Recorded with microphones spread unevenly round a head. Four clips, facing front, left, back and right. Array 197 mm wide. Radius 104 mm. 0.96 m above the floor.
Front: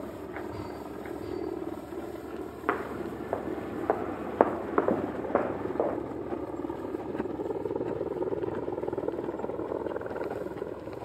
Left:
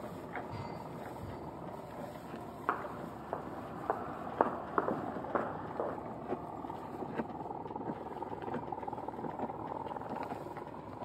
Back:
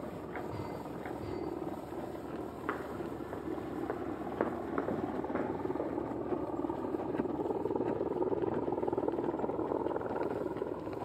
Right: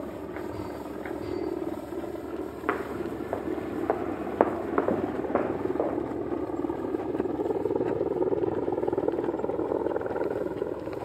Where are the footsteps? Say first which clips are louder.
Right 7 dB, front 8 dB; 25° right; by 6.0 s 15° right.